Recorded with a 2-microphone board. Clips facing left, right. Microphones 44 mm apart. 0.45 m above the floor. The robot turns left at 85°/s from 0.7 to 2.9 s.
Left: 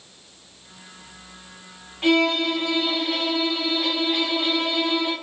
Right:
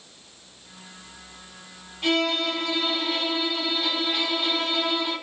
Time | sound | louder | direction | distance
2.0 | a violin | left 4 dB | 110° left | 1.1 m